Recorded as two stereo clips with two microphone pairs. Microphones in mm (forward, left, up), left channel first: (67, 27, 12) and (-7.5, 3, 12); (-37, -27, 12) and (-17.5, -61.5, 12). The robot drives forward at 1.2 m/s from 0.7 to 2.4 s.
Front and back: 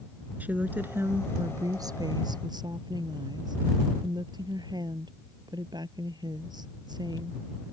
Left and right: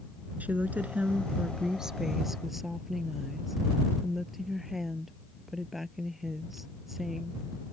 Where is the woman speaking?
95° right; by 7.4 s 145° right.